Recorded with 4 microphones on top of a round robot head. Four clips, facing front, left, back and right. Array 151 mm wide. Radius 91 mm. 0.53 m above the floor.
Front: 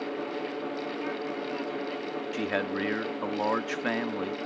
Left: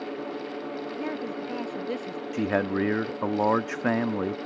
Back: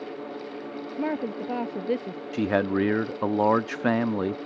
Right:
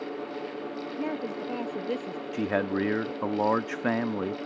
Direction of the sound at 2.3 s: 175° left.